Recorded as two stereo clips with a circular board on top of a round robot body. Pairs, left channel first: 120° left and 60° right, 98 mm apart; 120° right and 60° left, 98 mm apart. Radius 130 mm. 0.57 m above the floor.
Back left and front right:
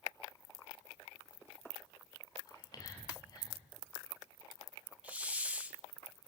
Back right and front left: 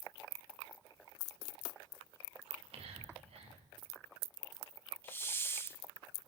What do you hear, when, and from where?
2.5 s whispering: 70° left, 7 m
5.0 s a hiss: 110° right, 1.1 m